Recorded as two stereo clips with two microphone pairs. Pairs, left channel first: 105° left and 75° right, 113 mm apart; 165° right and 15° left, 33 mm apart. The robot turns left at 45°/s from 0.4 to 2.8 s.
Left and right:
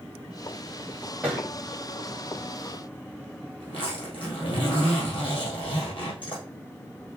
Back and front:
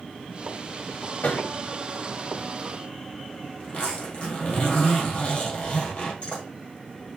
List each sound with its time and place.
1.2 s a thud: 155° right, 2.5 m; by 1.5 s 165° right, 2.5 m
3.6 s a zipper: 145° left, 3 m